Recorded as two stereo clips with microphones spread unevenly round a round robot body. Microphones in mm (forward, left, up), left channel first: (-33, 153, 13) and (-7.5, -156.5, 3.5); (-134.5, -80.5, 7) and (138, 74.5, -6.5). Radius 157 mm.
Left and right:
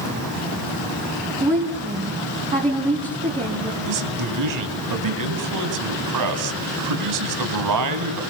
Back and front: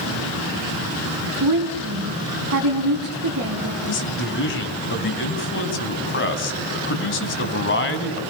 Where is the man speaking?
100° right, 3 m.